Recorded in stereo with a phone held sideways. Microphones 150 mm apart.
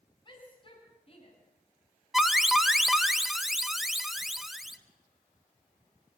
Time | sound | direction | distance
0.2 | a shout | 30° left (ahead or behind) | 9 m
2.1 | an alarm | centre (ahead or behind) | 1.3 m